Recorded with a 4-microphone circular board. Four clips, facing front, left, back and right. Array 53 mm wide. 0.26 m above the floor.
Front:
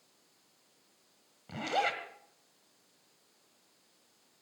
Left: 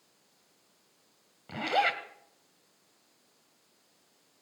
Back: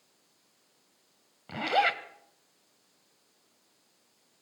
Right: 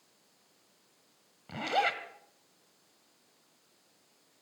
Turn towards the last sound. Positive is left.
turn(degrees=165)